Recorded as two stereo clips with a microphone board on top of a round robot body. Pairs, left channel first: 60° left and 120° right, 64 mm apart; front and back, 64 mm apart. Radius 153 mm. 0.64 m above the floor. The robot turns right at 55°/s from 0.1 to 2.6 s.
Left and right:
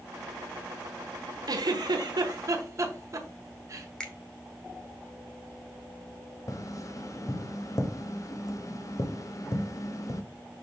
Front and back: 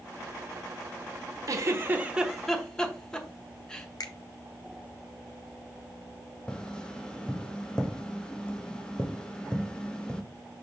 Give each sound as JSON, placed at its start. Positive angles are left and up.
{"t": 1.5, "sound": "a giggle", "azimuth_deg": -140, "distance_m": 1.2}
{"t": 4.0, "sound": "a finger snap", "azimuth_deg": -20, "distance_m": 1.4}
{"t": 6.5, "sound": "tapping", "azimuth_deg": 75, "distance_m": 1.2}